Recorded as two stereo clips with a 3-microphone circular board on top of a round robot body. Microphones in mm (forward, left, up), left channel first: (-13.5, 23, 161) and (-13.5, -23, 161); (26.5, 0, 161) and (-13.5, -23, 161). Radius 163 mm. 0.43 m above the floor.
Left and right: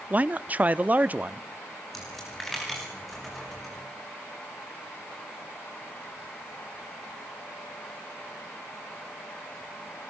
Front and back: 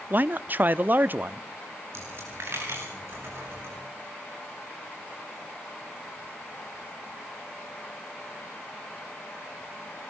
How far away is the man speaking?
About 1.0 m.